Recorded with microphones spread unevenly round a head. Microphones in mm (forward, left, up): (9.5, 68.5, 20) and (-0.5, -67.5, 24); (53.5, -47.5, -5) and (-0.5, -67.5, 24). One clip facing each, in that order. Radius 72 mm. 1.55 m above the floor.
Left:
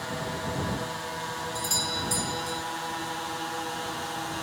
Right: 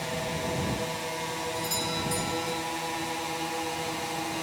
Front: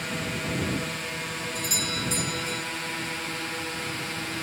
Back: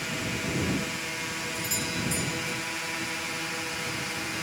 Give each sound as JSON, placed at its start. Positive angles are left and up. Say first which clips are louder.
{"t": 0.0, "sound": "a drone", "louder": "right 1 dB, front 1 dB", "azimuth_deg": -40}
{"t": 1.6, "sound": "a doorbell", "louder": "right 1 dB, front 1 dB", "azimuth_deg": 25}